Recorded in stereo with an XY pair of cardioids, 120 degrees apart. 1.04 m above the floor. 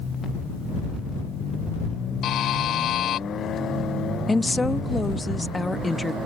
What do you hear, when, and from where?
2.2 s a buzzer: 65° left
4.3 s a woman speaking: 15° left